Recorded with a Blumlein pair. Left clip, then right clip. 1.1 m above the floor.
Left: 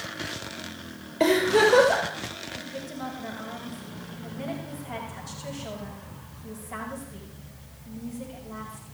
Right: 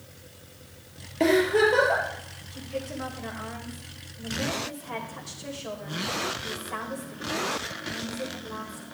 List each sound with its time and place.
1.2 s a giggle: 5° right, 5.5 m
2.5 s a woman speaking: 70° right, 5.5 m